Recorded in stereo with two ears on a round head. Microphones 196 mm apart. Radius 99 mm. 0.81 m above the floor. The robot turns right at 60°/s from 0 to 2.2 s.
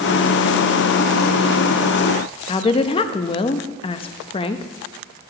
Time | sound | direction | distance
2.5 | a woman speaking | 25° left (ahead or behind) | 0.5 m